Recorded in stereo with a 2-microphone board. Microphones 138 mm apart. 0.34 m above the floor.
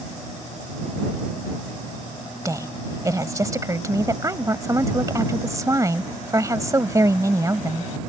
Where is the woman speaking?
25° right (ahead or behind).